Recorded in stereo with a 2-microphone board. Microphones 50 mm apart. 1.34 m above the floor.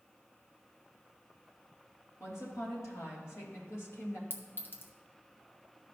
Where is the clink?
45° left (ahead or behind), 0.9 m.